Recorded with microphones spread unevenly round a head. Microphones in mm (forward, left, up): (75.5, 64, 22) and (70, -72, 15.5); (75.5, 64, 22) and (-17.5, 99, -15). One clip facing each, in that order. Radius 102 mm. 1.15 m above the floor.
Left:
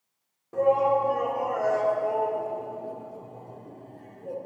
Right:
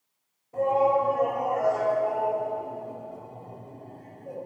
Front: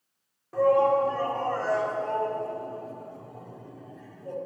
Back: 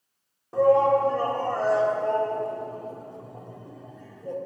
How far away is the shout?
About 1.8 m.